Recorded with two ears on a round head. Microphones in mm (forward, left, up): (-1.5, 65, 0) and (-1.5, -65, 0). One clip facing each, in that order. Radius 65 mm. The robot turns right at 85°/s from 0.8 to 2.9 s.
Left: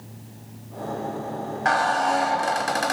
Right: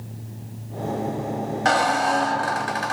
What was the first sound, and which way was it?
A squeak, 40° right.